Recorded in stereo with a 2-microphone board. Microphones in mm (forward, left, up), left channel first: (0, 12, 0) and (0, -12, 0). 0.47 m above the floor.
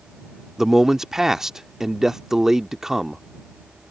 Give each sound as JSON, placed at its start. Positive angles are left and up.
{"t": 0.6, "sound": "a man speaking", "side_deg": -20}